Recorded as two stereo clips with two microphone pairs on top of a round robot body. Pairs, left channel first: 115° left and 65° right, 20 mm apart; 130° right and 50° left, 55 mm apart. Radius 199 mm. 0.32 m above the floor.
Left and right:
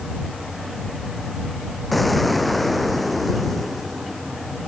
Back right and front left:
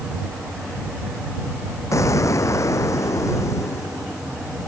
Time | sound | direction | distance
1.9 | an explosion | 160° right | ?